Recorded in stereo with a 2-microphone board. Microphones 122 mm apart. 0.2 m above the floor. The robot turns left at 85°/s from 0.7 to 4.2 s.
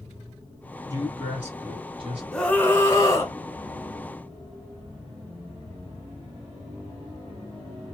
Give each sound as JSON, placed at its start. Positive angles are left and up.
{"t": 0.9, "sound": "a man speaking", "azimuth_deg": 30, "distance_m": 1.8}
{"t": 2.3, "sound": "a scream", "azimuth_deg": 175, "distance_m": 1.1}